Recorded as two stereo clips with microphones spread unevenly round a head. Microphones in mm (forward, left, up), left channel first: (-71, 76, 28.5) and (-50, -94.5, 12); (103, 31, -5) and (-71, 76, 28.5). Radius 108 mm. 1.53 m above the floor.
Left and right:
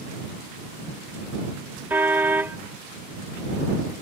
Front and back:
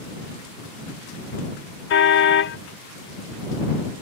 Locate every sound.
1.9 s a car horn: straight ahead